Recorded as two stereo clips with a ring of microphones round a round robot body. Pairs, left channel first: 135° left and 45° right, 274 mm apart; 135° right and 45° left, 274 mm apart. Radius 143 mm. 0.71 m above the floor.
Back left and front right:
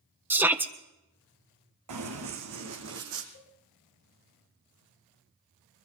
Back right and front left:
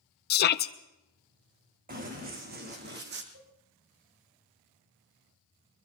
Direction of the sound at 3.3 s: 90° left.